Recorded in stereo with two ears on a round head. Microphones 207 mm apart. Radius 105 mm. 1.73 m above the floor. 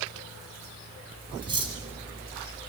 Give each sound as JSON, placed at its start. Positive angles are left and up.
{"t": 1.4, "sound": "cutlery clinking", "side_deg": -25, "distance_m": 7.0}